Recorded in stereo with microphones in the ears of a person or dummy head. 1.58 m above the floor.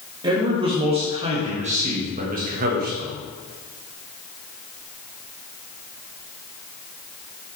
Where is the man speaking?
25° right (ahead or behind), 2.5 m; by 3.1 s 55° right (ahead or behind), 1.7 m.